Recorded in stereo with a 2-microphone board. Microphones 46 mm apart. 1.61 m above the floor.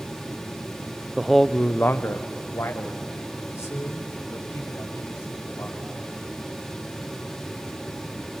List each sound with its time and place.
1.2 s a man speaking: 15° right (ahead or behind), 0.5 m; by 5.9 s 85° left, 4 m